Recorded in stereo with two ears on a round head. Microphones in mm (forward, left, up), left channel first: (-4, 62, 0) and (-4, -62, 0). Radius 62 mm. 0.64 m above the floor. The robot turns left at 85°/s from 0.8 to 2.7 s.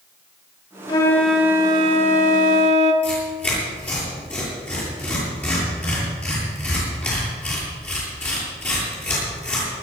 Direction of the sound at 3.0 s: 10° left (ahead or behind).